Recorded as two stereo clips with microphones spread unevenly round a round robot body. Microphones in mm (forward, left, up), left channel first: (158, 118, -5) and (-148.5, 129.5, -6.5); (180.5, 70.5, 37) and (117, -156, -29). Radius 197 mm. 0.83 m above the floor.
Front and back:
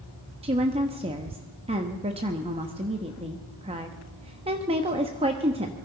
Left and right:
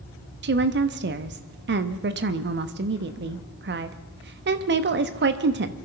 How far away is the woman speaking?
About 0.8 m.